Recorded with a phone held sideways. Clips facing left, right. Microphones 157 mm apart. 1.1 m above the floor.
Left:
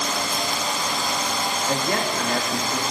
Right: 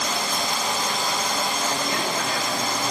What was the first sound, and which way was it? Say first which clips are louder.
A man speaking: left 2 dB; 55° left (ahead or behind).